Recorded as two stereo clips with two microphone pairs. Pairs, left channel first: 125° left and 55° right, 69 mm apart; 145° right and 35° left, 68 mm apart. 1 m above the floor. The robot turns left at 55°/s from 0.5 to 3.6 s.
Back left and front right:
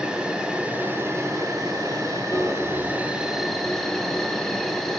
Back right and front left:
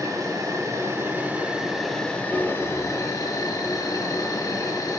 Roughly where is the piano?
Behind left.